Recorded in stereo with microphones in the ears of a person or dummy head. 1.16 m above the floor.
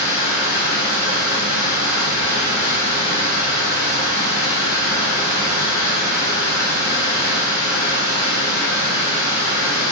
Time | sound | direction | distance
0.0 | running water | 55° left (ahead or behind) | 0.8 m